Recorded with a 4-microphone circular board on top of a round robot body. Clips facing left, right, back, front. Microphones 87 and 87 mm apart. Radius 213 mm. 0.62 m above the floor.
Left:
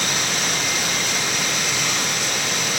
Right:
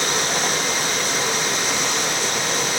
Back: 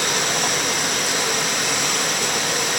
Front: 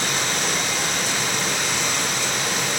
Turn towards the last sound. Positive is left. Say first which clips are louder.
# right 3 dB, back 2 dB
turn(degrees=-145)